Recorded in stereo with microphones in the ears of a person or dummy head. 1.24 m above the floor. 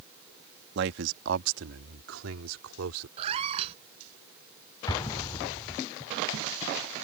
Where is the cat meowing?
35° right (ahead or behind).